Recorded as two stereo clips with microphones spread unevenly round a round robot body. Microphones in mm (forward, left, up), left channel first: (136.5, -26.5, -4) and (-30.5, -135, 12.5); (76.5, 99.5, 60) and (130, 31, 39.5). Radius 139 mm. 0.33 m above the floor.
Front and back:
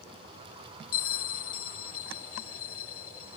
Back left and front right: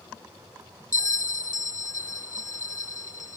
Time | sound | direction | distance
0.9 | a bell | 70° left | 0.6 m